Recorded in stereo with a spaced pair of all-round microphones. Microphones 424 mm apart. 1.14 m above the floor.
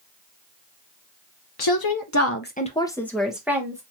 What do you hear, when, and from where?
1.6 s a woman speaking: 60° left (ahead or behind), 0.6 m; by 3.8 s 5° right (ahead or behind), 1.5 m